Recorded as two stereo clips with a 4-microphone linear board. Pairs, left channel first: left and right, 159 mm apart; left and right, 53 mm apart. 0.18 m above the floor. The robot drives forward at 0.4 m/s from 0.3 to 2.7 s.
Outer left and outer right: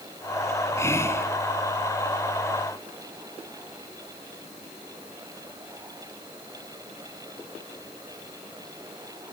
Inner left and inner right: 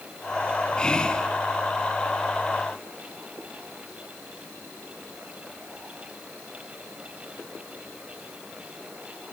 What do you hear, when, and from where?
0.8 s whispering: 20° left (ahead or behind), 1.9 m; by 1.3 s 15° left (ahead or behind), 2 m